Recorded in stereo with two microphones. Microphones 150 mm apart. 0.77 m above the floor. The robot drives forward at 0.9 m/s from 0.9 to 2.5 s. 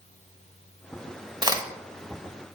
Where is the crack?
30° right (ahead or behind), 0.9 m; by 1.6 s 25° right (ahead or behind), 1.0 m.